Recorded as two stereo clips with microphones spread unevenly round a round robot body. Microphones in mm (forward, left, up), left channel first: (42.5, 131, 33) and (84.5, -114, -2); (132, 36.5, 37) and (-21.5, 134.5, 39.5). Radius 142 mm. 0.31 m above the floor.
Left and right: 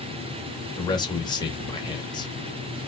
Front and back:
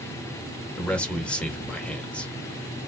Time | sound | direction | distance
0.8 | a man speaking | 35° left | 1.0 m